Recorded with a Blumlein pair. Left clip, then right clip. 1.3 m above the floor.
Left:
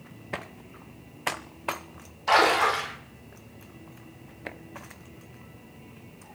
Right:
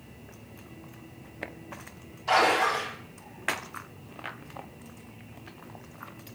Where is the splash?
25° left, 4 m.